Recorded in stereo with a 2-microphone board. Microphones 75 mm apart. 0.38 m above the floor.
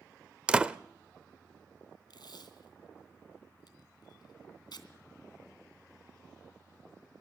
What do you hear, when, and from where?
0.5 s a door slam: 15° right (ahead or behind), 0.6 m
2.1 s tape being pulled: 75° left (ahead or behind), 2.5 m